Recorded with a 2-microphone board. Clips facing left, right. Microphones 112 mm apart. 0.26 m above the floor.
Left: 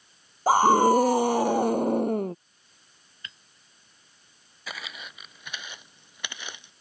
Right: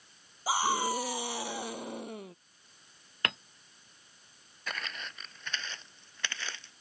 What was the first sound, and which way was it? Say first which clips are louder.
A scream: left 12 dB; 50° left (ahead or behind).